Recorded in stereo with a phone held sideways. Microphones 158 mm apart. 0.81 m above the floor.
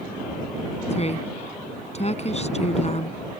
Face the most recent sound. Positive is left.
turn(degrees=45)  # may be behind; listen again after turning